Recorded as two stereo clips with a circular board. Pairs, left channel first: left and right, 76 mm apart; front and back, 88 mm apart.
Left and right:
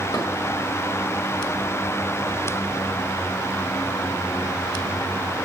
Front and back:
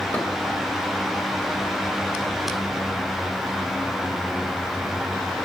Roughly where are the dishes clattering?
Left.